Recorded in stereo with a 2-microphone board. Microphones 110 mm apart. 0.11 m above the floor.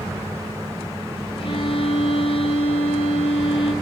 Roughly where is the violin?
Left.